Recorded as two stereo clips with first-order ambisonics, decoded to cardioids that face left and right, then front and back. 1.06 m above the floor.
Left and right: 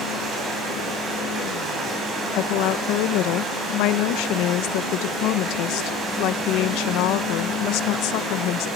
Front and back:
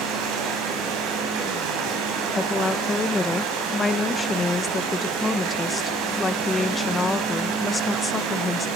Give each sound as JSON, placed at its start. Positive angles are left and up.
{"t": 0.0, "sound": "running water", "azimuth_deg": -155, "distance_m": 7.5}
{"t": 2.3, "sound": "a woman speaking", "azimuth_deg": 75, "distance_m": 0.8}